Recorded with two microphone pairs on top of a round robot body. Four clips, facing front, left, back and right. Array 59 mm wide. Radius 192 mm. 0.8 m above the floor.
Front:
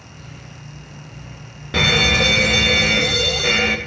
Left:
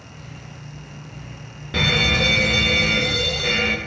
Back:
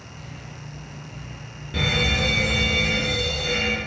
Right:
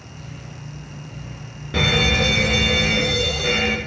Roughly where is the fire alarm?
Ahead.